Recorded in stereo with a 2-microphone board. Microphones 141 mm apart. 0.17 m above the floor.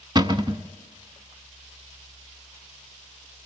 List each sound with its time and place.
0.1 s a cupboard door: 35° right (ahead or behind), 0.6 m